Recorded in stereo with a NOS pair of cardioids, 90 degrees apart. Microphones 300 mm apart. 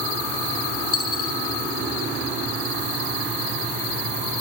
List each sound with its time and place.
0.9 s a dropped coin: 50° left, 5.5 m